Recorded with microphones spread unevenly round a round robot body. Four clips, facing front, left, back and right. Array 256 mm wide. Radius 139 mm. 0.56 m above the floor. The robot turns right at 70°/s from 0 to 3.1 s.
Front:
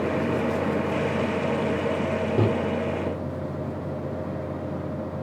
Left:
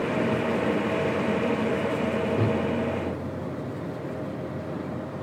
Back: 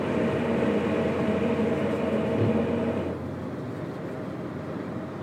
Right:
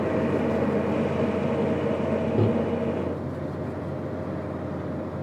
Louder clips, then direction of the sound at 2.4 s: Right 6 dB, front 4 dB; 15° right.